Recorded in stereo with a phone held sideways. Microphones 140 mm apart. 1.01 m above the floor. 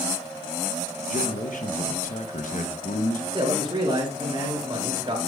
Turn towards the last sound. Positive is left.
turn(degrees=-35)  # may be behind; listen again after turning